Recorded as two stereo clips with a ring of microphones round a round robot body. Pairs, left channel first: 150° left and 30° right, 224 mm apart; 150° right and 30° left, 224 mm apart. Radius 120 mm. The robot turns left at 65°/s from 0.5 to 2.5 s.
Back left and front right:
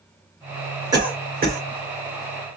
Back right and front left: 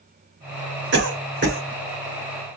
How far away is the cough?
About 1.6 m.